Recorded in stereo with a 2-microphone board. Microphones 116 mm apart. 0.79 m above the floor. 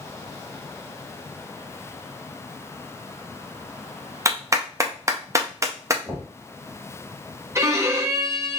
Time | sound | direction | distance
4.2 | a clap | 25° right (ahead or behind) | 0.5 m
6.0 | knocking | 20° left (ahead or behind) | 1.9 m
7.5 | a violin | 25° right (ahead or behind) | 0.6 m